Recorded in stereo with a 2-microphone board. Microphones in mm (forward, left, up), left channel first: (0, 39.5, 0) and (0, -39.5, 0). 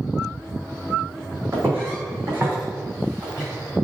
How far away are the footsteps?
About 2.0 m.